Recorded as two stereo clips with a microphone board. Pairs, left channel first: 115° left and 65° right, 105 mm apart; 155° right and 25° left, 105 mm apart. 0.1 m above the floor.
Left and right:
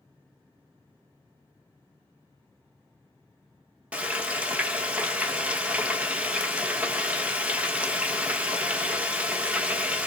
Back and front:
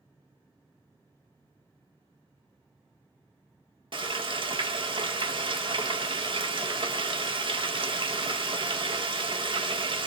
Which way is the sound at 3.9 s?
10° left.